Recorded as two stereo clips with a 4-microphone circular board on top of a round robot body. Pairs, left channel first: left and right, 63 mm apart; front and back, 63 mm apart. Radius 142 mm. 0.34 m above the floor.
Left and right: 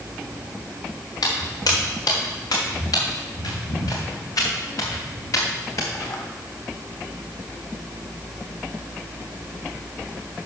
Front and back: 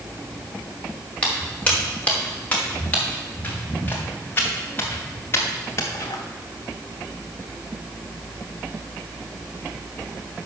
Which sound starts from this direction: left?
Footsteps, at 1.2 s.